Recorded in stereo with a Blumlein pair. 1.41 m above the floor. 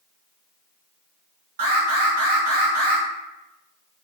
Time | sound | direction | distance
1.6 | an alarm | 55° right | 1.4 m